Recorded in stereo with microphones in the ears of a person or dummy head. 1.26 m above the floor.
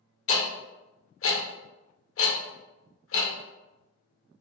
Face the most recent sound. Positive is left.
turn(degrees=65)  # may be behind; listen again after turning